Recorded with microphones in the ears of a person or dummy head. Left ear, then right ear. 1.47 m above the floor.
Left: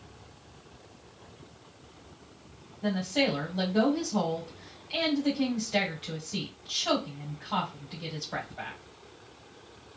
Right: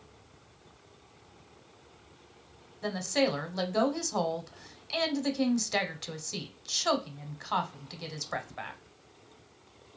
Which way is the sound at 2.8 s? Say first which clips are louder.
Left 1 dB; 65° right (ahead or behind).